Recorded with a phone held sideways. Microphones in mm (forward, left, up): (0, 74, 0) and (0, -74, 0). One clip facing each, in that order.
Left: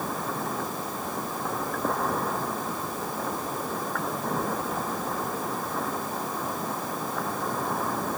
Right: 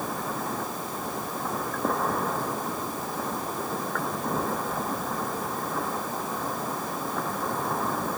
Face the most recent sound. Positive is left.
No sound to turn to.